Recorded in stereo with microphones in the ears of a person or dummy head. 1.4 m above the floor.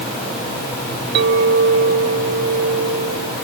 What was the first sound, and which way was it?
A clink, 65° right (ahead or behind).